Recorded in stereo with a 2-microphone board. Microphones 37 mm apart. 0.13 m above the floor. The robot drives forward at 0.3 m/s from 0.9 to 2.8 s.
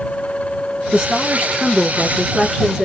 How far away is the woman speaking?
About 1.3 m.